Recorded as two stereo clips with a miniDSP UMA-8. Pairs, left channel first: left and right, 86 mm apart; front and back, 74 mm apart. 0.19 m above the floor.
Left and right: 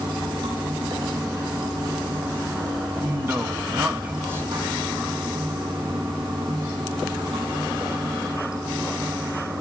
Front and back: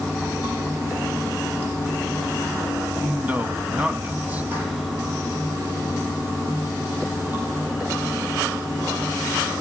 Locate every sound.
0.0 s running water: 115° right, 5.5 m
3.0 s a man speaking: 130° right, 1.2 m